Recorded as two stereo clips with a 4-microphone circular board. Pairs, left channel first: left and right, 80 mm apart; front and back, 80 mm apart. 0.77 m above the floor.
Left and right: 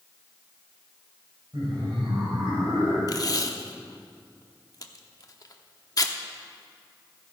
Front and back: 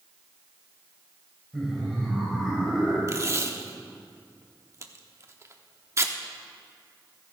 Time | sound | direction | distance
1.5 | laughter | 90° right | 3 m
3.1 | tape being pulled | 130° left | 0.9 m